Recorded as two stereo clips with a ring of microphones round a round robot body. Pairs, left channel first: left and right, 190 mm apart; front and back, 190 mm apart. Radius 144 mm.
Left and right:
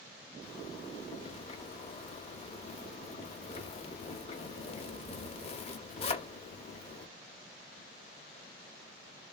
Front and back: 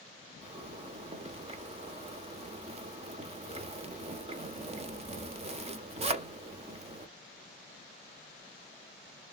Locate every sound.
0.4 s a zipper: 135° left, 0.6 m